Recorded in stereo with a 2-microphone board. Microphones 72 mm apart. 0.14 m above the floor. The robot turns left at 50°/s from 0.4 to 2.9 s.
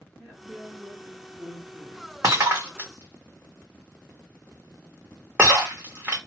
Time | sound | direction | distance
0.2 | a woman speaking | 15° right (ahead or behind) | 1.6 m
2.2 | breaking glass | 50° right (ahead or behind) | 1.2 m